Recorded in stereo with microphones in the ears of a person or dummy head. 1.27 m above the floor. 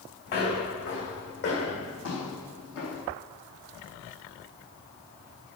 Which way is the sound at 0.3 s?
50° left (ahead or behind).